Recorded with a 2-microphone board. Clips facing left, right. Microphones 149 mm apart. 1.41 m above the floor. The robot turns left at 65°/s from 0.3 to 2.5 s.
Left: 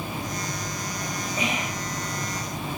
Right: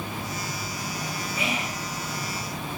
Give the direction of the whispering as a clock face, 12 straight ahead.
11 o'clock.